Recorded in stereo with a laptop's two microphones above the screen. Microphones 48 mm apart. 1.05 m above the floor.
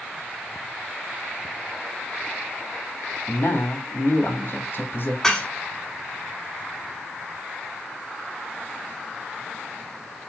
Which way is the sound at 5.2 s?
15° left (ahead or behind).